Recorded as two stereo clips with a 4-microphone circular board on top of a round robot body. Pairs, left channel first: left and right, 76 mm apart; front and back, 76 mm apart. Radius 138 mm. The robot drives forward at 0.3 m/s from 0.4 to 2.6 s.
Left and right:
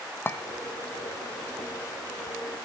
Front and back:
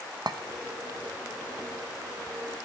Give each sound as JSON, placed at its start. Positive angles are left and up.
{"t": 0.3, "sound": "a clink", "azimuth_deg": 150, "distance_m": 1.1}